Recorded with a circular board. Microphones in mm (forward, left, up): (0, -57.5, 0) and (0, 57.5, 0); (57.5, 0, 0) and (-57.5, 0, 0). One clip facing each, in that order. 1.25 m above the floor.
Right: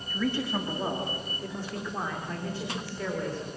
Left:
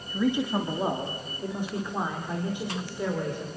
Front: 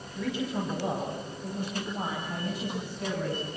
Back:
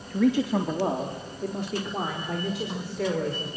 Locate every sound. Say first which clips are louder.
0.1 s a man speaking: left 4 dB, back 9 dB; 160° left, 2.5 m; by 3.5 s 165° left, 5.5 m